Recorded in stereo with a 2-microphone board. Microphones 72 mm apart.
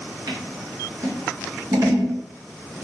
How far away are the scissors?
About 0.8 m.